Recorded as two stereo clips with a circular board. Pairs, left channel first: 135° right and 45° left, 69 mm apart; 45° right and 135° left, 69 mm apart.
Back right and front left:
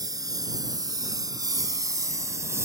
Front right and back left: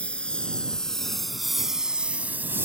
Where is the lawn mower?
30° left; by 2.7 s 85° left.